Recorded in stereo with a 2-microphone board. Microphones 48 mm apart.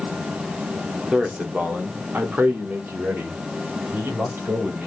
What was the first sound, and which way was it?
A man speaking, 30° right (ahead or behind).